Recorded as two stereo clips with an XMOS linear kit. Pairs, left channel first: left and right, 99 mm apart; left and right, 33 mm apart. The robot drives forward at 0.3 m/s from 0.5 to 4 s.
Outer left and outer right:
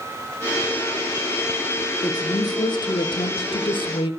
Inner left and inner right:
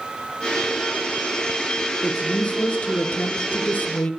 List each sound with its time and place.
2.0 s a woman speaking: 40° left (ahead or behind), 0.9 m; by 4.1 s 55° left (ahead or behind), 0.6 m